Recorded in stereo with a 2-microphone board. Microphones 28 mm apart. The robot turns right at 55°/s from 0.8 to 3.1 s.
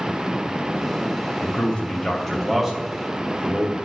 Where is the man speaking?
60° left (ahead or behind), 2.5 m; by 3.8 s 30° right (ahead or behind), 2.5 m.